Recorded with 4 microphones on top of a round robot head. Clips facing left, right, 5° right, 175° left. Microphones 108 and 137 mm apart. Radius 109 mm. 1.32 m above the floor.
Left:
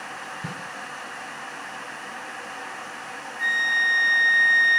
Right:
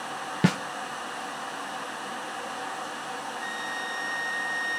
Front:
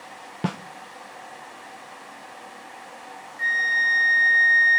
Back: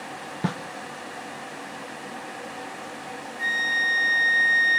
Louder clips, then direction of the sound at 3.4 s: Left 6 dB, front 3 dB; 110° left.